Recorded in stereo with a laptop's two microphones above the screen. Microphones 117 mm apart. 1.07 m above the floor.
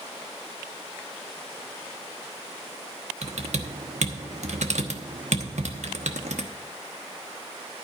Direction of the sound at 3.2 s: 80° right.